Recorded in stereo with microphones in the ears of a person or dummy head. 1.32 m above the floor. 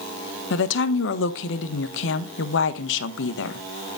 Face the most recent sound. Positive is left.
turn(degrees=75)  # may be behind; listen again after turning